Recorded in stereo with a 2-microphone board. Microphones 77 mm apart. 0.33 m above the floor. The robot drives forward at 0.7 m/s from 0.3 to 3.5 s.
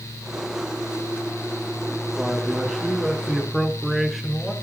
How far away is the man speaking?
About 3.5 m.